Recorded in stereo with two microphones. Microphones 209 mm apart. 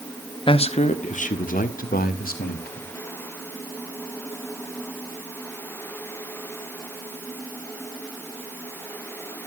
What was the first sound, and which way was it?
A man speaking, 25° left (ahead or behind).